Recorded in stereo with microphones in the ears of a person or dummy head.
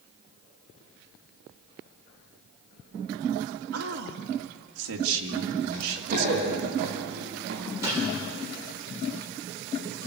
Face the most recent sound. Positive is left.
turn(degrees=-10)  # may be behind; listen again after turning